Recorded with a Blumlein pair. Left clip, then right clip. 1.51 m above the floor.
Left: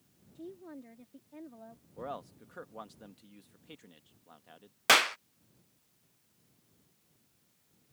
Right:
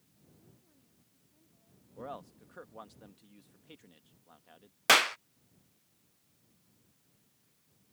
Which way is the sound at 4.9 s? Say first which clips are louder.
Even; straight ahead.